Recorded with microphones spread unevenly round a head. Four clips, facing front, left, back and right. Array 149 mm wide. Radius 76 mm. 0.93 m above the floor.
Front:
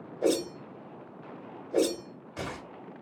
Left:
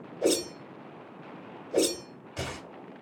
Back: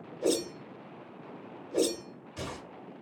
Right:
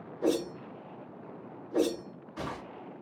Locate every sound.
0.2 s a whoosh: 75° left, 1.2 m